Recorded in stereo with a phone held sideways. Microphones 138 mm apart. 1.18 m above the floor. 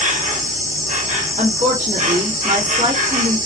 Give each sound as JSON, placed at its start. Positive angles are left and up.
{"t": 0.0, "sound": "an insect", "side_deg": -65, "distance_m": 1.2}
{"t": 1.4, "sound": "a woman speaking", "side_deg": -70, "distance_m": 1.8}